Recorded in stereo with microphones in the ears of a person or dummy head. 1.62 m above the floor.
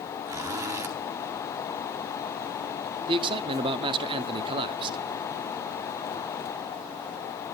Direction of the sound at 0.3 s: 15° right (ahead or behind).